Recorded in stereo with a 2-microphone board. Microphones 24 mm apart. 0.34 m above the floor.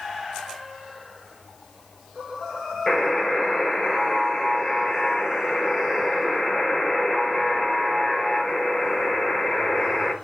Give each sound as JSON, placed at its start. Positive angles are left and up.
{"t": 2.9, "sound": "a buzzer", "side_deg": 25, "distance_m": 4.5}